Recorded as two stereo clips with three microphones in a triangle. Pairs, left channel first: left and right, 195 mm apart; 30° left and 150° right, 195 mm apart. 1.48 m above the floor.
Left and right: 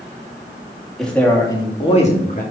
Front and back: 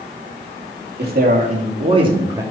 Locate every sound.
1.0 s a man speaking: straight behind, 2.5 m; by 2.4 s 135° left, 2.5 m